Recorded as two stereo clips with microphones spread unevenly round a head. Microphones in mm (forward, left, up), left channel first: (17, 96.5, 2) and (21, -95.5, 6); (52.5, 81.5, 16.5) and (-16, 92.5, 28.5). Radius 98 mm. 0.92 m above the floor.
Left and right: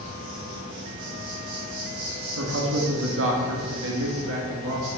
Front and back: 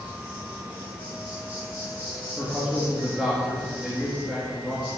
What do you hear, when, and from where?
0.0 s an insect: 110° right, 5.5 m
2.4 s a man speaking: 100° right, 1.7 m